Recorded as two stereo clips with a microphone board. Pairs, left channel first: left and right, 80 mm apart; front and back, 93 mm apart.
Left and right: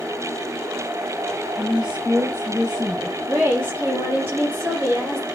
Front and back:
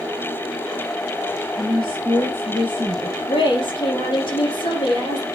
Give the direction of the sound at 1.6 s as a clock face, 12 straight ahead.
1 o'clock.